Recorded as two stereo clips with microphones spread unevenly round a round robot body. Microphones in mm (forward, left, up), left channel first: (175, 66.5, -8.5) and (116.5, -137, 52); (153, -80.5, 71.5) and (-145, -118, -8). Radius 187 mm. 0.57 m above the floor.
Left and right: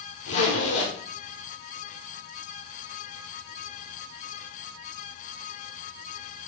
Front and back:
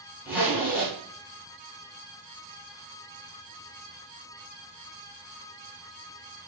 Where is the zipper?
100° left, 1.9 m.